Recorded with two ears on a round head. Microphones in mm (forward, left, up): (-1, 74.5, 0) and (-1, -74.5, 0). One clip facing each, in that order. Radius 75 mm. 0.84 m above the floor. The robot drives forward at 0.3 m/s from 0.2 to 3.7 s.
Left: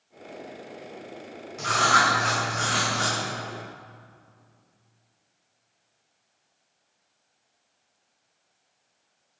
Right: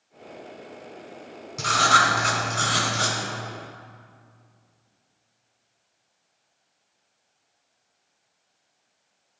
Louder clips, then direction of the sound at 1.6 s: Right 1 dB; 55° right (ahead or behind).